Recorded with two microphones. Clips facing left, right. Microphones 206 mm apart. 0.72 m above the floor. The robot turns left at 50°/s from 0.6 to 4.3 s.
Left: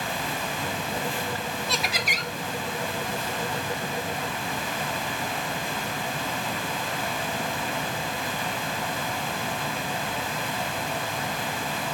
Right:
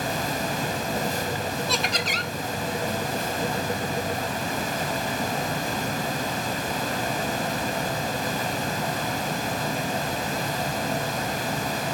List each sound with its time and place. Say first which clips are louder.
1.7 s laughter: right 3 dB; straight behind, 0.5 m; by 2.3 s 150° left, 0.5 m